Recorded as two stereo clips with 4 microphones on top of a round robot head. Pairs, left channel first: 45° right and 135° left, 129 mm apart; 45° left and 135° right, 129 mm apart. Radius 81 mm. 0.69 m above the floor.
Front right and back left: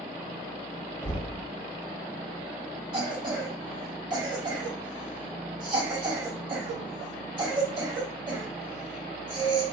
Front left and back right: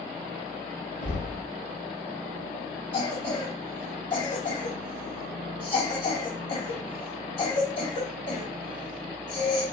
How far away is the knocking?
About 1.4 m.